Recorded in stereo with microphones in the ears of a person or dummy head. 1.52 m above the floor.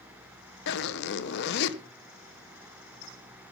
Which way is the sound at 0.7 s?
55° left (ahead or behind).